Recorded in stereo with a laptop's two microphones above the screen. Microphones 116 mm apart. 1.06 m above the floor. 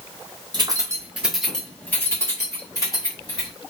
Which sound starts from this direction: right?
Keys jangling, at 0.5 s.